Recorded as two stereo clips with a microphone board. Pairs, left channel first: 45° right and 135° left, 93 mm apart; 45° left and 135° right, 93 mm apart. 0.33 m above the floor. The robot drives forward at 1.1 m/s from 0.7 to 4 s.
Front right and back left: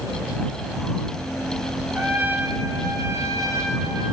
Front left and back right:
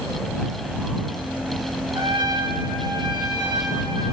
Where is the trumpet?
155° right, 1.1 m; by 4.1 s 175° right, 3 m.